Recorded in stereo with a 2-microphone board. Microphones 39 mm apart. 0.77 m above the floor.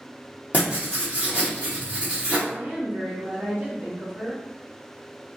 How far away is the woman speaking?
About 1.4 m.